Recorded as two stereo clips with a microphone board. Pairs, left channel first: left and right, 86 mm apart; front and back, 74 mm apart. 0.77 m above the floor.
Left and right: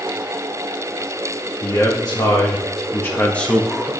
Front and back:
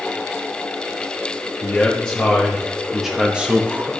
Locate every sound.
1.6 s a man speaking: 70° left, 1.3 m; by 3.9 s 170° right, 0.8 m